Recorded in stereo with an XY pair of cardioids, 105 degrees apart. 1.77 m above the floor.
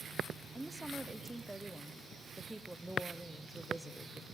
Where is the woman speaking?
10° right, 0.9 m.